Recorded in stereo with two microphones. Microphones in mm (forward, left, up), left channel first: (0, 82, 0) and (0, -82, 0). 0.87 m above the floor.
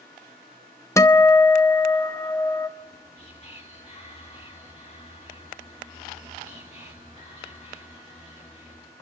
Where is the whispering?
40° left (ahead or behind), 2.0 m.